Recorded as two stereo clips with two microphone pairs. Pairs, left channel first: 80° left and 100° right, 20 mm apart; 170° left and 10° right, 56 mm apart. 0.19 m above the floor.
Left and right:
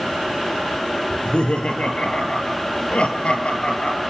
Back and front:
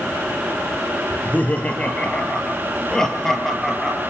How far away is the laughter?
About 3.5 m.